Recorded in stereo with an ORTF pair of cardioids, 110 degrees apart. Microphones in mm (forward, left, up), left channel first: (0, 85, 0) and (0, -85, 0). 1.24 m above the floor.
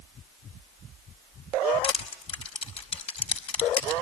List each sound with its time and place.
1.8 s crushing: 35° left, 4.5 m